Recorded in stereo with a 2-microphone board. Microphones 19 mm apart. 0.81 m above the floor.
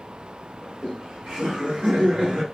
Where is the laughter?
45° right (ahead or behind), 1.5 m; by 2.4 s 55° right (ahead or behind), 1.0 m.